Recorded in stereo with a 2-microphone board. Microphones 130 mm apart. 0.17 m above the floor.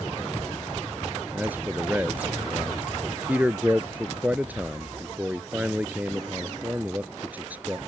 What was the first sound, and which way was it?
A man speaking, 10° right (ahead or behind).